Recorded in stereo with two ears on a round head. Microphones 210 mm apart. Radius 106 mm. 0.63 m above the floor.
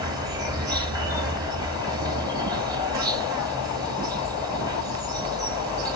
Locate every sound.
0.0 s an insect: 20° right (ahead or behind), 1.8 m